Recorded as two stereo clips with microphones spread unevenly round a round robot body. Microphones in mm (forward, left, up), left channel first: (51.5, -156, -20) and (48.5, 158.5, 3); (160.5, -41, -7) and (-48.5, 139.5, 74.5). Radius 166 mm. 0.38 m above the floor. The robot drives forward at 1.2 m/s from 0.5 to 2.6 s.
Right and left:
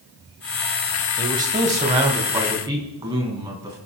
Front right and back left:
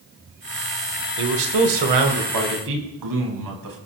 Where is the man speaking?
150° left, 1.5 m; by 3.8 s 170° left, 3 m.